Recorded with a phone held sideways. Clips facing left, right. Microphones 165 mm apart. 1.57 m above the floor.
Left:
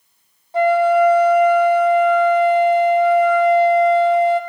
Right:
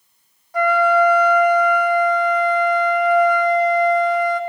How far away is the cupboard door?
No cupboard door in this recording.